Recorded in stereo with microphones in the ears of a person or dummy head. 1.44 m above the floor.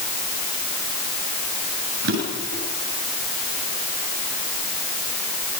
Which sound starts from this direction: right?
A drawer, at 2.0 s.